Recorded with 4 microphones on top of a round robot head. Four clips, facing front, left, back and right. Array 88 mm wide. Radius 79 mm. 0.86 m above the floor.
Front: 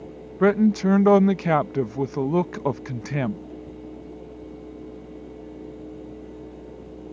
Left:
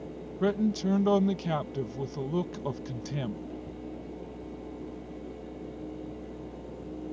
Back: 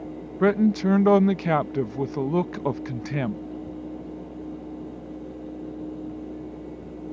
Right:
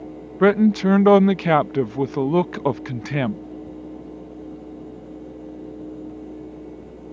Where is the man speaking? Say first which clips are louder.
Right 12 dB, front 2 dB; 80° right.